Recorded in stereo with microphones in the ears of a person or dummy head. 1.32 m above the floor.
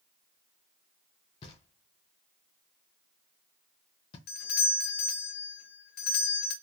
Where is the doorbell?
45° left (ahead or behind), 0.5 m.